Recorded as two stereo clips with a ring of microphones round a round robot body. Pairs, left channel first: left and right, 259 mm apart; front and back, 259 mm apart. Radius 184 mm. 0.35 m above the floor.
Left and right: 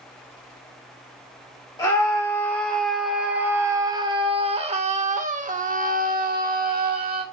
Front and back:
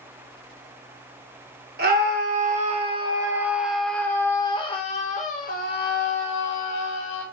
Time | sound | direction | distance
1.8 | a scream | 160° left | 1.7 m